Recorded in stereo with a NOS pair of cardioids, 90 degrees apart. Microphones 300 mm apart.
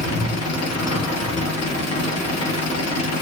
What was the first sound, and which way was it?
An engine running, 60° left.